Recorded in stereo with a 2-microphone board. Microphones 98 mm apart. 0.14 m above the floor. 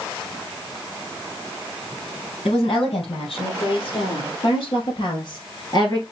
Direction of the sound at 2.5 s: 70° left (ahead or behind).